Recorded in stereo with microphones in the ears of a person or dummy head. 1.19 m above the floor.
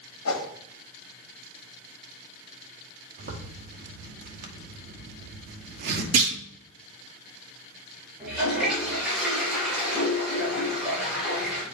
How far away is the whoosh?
About 1.6 m.